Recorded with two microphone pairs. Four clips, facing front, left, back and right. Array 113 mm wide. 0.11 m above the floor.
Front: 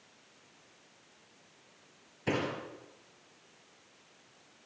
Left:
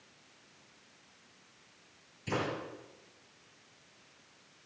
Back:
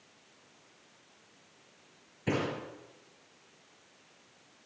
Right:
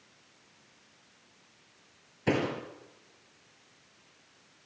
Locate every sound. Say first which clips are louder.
2.3 s a door slam: right 6 dB, back 1 dB; 75° right, 7 m